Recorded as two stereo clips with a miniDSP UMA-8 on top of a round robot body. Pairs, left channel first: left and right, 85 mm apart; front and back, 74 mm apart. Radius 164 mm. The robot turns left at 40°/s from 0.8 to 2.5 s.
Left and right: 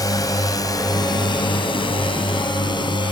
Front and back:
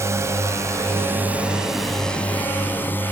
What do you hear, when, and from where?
0.0 s a drone: 130° left; by 3.1 s 65° left